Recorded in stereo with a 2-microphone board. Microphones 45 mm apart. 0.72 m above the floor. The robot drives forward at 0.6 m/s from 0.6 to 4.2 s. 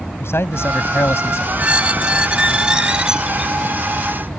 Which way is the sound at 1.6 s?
35° right (ahead or behind).